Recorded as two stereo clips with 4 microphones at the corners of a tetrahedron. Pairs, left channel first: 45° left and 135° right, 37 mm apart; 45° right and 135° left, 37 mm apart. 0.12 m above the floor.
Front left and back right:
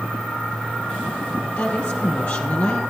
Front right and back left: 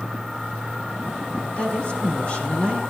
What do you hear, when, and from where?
1.6 s a woman speaking: 5° left, 3.5 m